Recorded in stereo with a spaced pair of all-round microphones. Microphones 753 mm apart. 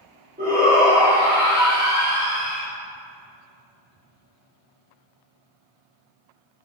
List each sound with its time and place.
0.4 s a shout: 10° right (ahead or behind), 1.8 m